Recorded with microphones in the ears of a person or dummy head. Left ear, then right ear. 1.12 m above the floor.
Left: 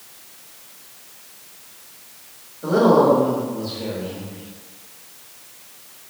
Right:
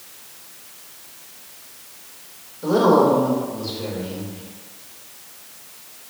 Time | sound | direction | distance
2.6 | a woman speaking | 25° right (ahead or behind) | 1.6 m